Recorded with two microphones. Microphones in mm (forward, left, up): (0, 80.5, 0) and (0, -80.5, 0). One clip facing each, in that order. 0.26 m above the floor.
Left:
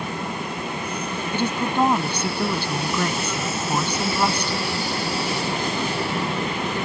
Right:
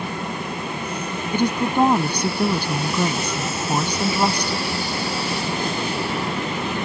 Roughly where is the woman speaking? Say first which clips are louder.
Right 3 dB; centre.